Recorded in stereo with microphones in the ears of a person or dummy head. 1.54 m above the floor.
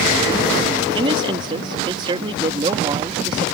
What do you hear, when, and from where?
0.9 s a man speaking: 25° right (ahead or behind)